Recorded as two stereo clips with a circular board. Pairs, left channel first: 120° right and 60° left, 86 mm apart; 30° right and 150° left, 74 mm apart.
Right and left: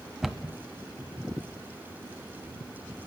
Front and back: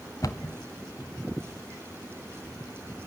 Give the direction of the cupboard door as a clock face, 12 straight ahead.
1 o'clock.